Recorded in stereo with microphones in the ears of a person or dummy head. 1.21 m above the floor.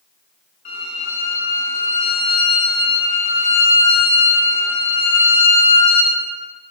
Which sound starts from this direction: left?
A violin, at 0.7 s.